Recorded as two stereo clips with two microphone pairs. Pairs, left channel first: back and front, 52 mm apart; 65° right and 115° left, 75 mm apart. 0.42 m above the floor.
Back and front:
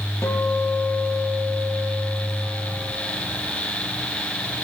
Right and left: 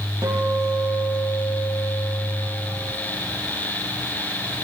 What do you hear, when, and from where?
0.2 s a guitar: 150° left, 8.5 m